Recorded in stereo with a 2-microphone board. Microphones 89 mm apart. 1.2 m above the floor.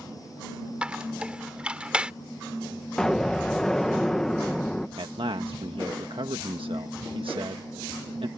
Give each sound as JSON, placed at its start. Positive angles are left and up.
{"t": 0.8, "sound": "a squeak", "side_deg": -10}
{"t": 3.0, "sound": "an explosion", "side_deg": 5}
{"t": 5.0, "sound": "a man speaking", "side_deg": -80}